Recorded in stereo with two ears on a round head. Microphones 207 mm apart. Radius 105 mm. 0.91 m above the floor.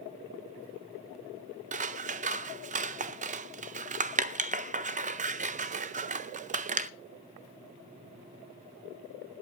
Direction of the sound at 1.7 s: 30° right (ahead or behind).